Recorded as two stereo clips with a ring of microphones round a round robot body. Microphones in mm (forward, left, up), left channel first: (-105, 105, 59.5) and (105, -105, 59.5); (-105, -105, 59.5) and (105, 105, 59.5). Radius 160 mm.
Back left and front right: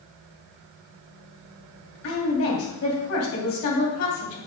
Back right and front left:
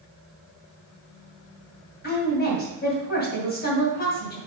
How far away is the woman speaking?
About 3 m.